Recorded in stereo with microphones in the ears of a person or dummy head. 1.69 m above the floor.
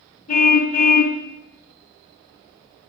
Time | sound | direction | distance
0.3 | a car horn | 40° left (ahead or behind) | 3 m